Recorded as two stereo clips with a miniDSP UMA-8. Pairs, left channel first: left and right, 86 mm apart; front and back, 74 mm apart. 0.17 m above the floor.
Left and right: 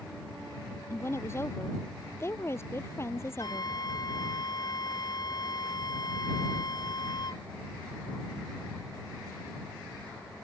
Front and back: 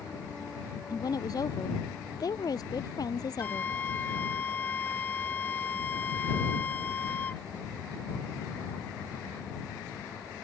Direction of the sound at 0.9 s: 30° left.